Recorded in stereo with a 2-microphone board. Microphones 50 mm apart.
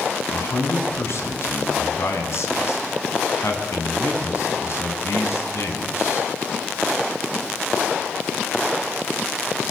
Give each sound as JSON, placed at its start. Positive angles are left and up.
{"t": 0.3, "sound": "a man speaking", "side_deg": 65, "distance_m": 7.5}